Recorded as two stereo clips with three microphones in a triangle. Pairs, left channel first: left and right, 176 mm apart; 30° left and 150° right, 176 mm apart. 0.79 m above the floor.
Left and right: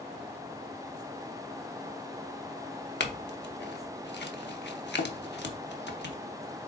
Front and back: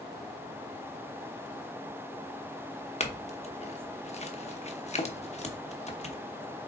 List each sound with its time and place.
3.0 s a clink: 80° left, 1.0 m